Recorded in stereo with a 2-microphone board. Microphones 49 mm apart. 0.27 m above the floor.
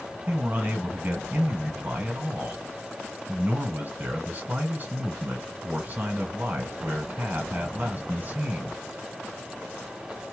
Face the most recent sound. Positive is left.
turn(degrees=-35)  # may be behind; listen again after turning